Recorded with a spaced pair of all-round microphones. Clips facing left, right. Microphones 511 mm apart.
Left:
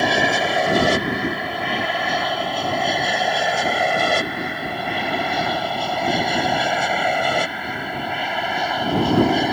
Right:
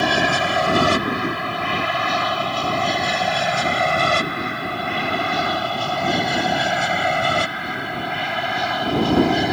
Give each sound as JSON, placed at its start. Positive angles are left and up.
{"t": 0.0, "sound": "an aircraft", "side_deg": -30}